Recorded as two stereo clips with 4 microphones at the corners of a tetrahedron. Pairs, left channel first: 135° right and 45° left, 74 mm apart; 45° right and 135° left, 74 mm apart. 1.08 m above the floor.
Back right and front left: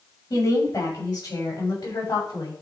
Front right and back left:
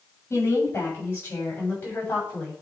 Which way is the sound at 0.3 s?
100° right.